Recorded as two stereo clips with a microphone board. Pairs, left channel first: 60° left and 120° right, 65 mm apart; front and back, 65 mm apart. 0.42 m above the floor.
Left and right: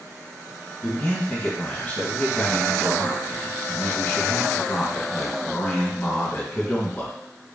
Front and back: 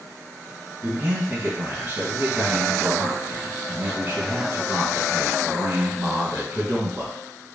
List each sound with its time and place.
0.8 s a man speaking: 130° left, 2.5 m